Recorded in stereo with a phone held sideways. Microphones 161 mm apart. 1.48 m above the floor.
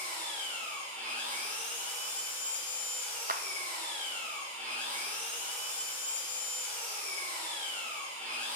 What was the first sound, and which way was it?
An engine running, 10° left (ahead or behind).